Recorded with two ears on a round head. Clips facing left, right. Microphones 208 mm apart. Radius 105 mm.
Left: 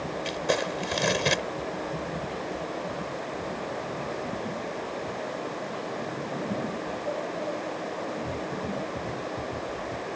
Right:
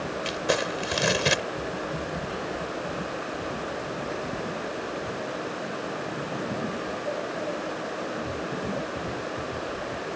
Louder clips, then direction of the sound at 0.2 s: Even; 5° right (ahead or behind).